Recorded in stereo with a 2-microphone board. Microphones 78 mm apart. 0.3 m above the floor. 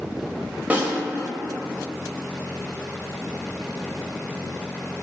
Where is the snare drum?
20° right (ahead or behind), 1.1 m.